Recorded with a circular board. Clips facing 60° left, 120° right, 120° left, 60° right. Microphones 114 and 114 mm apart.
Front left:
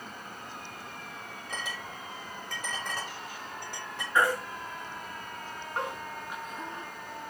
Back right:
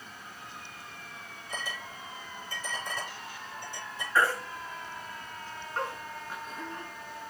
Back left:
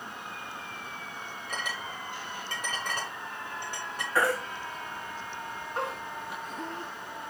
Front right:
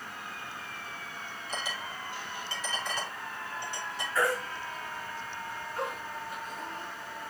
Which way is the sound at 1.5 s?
80° left.